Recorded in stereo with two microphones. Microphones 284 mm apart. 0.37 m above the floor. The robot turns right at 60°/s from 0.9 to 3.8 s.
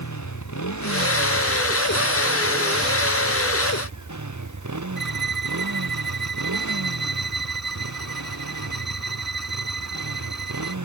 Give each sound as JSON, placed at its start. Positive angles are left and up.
{"t": 0.0, "sound": "a motorcycle", "azimuth_deg": 105}
{"t": 5.0, "sound": "a violin", "side_deg": -75}